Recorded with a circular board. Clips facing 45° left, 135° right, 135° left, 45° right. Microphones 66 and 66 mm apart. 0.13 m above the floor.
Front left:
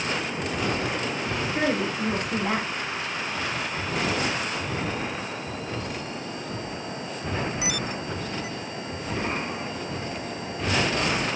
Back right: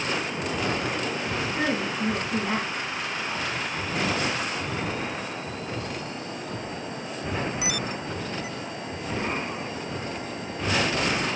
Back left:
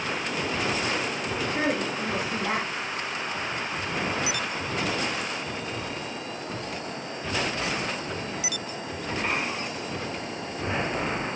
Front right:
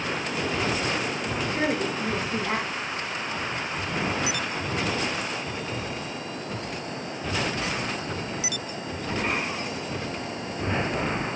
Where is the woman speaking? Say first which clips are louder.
Front left 3 dB, front right 1 dB; 65° left, 6 m.